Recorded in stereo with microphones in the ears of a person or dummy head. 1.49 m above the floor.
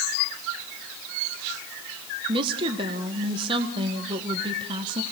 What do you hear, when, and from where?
2.3 s a woman speaking: 20° right (ahead or behind), 1.5 m